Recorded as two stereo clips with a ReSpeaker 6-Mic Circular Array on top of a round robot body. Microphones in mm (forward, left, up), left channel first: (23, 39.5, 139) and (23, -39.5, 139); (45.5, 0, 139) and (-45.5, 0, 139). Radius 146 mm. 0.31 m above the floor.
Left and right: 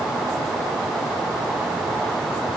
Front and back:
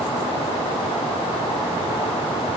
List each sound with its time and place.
Only background noise.